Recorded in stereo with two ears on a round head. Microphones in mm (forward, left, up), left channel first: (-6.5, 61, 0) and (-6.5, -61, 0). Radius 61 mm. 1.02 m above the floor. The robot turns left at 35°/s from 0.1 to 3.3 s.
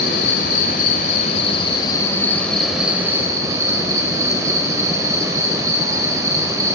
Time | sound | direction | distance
0.0 | an insect | 90° left | 3.5 m